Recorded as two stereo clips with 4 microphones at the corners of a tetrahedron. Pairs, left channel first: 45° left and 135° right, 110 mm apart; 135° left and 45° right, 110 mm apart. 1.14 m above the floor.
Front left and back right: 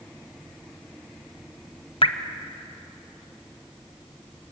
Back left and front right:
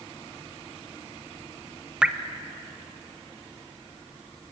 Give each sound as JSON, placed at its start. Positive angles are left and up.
{"t": 2.0, "sound": "dripping", "azimuth_deg": 35, "distance_m": 1.0}